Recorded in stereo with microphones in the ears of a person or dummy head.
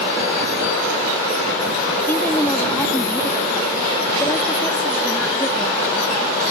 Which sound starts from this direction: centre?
A woman speaking, at 2.1 s.